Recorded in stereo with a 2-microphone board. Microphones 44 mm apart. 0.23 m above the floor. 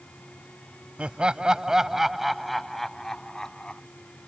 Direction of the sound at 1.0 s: 25° right (ahead or behind).